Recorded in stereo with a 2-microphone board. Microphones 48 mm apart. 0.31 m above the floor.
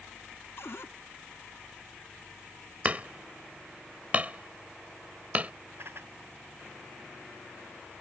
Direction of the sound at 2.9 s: 30° right (ahead or behind).